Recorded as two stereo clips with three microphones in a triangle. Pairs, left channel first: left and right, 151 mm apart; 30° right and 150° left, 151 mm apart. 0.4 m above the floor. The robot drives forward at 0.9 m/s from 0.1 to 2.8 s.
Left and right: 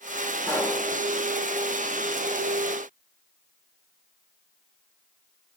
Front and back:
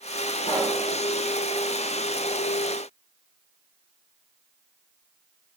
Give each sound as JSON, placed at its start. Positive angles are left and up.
{"t": 0.5, "sound": "a pop", "azimuth_deg": 15, "distance_m": 2.5}